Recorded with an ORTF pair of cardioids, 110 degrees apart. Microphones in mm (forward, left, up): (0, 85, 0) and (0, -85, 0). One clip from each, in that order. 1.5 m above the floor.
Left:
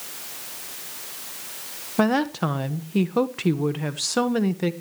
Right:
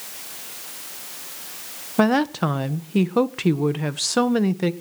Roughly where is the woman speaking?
Ahead.